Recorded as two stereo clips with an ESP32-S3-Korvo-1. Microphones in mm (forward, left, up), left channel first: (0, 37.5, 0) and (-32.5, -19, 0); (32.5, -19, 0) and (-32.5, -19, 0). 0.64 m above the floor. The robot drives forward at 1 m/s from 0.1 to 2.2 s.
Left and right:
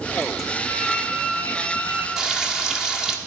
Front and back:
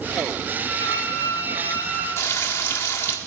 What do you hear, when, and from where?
0.6 s a flute: 40° right, 5 m; by 2.1 s 55° right, 4 m
2.2 s frying: 40° right, 1.4 m